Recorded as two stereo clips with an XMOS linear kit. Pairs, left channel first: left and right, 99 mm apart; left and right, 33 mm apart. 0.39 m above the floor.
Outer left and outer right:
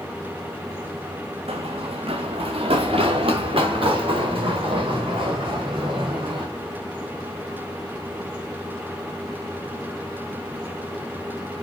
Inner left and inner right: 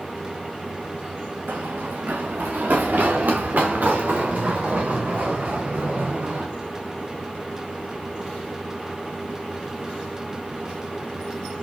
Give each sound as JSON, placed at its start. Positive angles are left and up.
{"t": 1.5, "sound": "running footsteps", "side_deg": -80, "distance_m": 1.9}